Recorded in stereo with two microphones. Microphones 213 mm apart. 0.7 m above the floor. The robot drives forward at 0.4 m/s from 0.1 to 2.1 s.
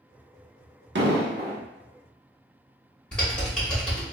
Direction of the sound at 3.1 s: 5° left (ahead or behind).